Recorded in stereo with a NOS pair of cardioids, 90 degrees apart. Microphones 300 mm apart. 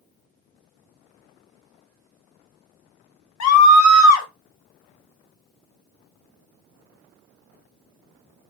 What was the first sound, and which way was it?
A scream, 60° left.